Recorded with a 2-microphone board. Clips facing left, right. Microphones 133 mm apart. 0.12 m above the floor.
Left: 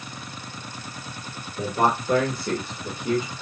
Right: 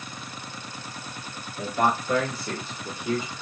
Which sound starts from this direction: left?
A man speaking, at 1.6 s.